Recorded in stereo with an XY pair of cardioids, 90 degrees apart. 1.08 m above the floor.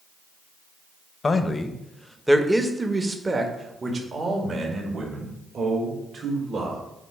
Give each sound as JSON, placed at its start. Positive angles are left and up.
{"t": 1.2, "sound": "a man speaking", "azimuth_deg": 40, "distance_m": 0.8}